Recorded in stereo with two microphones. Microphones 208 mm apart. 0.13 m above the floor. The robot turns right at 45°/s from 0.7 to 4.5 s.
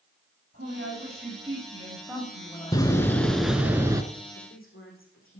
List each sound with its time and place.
0.5 s a woman speaking: 70° right, 7 m; by 3.7 s 70° left, 7 m
2.7 s a door slam: 150° left, 1.0 m; by 4.0 s 155° right, 1.0 m
4.3 s a woman speaking: 75° left (ahead or behind), 6 m; by 5.4 s 80° left, 6 m